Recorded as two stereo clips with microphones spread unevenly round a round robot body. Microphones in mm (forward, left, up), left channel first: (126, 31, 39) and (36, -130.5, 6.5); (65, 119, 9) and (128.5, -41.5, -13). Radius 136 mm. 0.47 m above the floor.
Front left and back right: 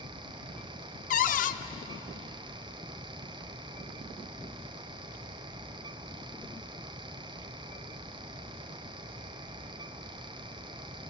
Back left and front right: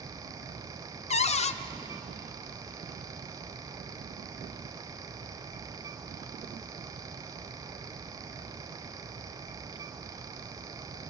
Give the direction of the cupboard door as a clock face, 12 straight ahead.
9 o'clock.